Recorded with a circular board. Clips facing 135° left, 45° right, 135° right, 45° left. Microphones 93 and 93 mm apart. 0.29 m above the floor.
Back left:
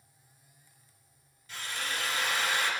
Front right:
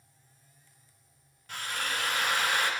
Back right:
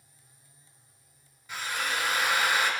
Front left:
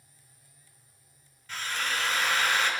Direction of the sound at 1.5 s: 55° right.